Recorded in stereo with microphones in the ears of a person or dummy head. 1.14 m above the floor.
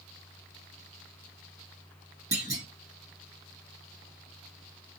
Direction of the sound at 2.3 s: 15° right (ahead or behind).